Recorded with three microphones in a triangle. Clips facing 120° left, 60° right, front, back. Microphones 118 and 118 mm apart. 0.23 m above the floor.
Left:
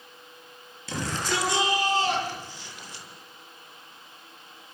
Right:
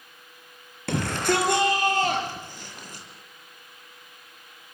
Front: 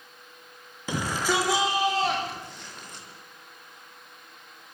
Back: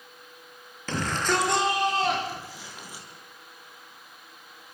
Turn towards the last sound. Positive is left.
turn(degrees=-100)